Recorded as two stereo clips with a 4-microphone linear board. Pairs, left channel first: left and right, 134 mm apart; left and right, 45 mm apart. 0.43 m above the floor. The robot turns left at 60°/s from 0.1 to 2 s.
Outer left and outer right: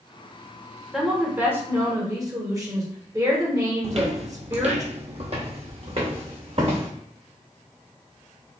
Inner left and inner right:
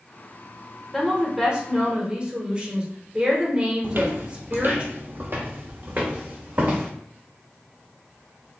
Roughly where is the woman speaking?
Centre.